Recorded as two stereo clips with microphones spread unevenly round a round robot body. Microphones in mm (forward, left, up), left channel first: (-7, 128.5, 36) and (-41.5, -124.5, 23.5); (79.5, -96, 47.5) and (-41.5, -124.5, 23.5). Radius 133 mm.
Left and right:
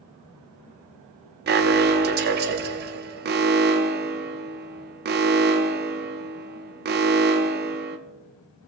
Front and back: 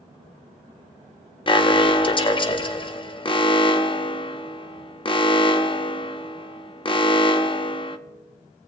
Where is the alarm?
45° right, 0.8 m.